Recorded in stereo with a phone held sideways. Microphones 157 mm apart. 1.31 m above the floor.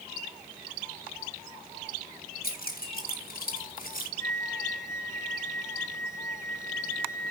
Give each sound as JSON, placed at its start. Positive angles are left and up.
{"t": 2.4, "sound": "keys jangling", "side_deg": 75, "distance_m": 5.0}
{"t": 4.2, "sound": "a flute", "side_deg": 20, "distance_m": 2.0}